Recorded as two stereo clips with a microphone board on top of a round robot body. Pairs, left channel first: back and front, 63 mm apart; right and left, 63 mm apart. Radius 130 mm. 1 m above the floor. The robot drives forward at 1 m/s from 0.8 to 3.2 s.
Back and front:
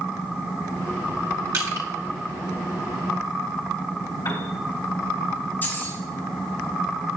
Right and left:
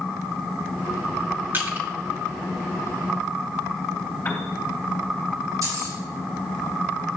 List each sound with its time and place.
1.5 s crushing: 30° left, 2.5 m; by 1.9 s 35° left, 2.5 m
4.2 s a piano: 155° right, 2.5 m
5.6 s keys jangling: 120° left, 5 m